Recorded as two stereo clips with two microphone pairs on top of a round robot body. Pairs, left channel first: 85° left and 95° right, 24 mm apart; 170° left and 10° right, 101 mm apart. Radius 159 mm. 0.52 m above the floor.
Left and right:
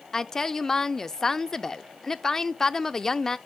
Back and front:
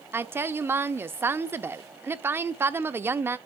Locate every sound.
0.1 s a woman speaking: 35° left, 0.6 m